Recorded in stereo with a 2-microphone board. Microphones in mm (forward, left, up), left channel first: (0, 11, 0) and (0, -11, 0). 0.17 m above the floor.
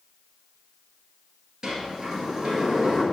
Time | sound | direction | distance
1.6 | a sliding door | 35° right (ahead or behind) | 1.8 m